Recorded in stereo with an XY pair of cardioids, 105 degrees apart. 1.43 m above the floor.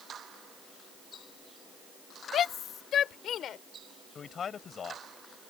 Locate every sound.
2.3 s a shout: 60° left; by 3.6 s 65° left
4.2 s a man speaking: 45° left